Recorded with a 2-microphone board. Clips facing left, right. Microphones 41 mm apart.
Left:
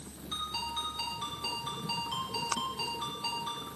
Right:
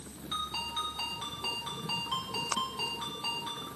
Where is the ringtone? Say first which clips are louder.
Right 1 dB; 30° right (ahead or behind), 5.5 m.